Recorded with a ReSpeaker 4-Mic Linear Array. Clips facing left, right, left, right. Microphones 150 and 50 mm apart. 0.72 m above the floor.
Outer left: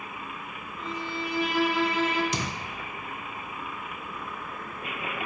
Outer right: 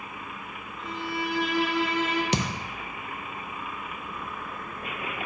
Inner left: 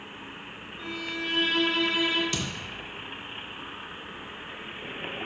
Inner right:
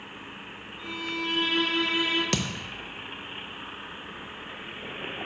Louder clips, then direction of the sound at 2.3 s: Outer right 4 dB, inner right 3 dB; 70° right (ahead or behind).